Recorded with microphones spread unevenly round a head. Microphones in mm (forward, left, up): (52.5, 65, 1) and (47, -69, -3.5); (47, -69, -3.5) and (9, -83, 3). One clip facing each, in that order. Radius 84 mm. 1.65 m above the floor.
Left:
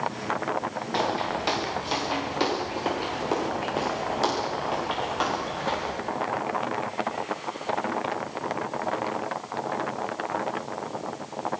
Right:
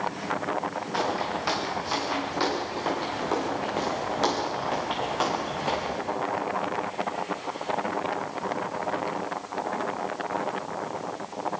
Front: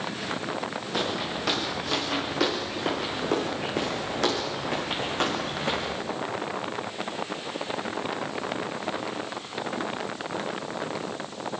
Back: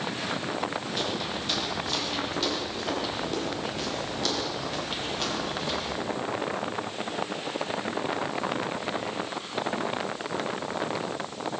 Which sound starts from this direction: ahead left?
Footsteps, at 0.9 s.